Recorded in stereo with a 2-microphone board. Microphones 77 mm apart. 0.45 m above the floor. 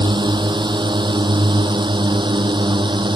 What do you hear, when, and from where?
0.0 s a drone: 75° right (ahead or behind); by 3.2 s 80° right